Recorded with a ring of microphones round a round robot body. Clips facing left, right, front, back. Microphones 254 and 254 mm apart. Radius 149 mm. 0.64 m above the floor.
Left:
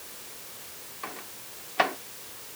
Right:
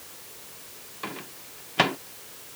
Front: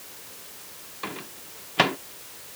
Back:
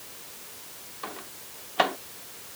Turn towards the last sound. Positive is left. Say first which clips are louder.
# right 6 dB, front 5 dB
turn(degrees=-50)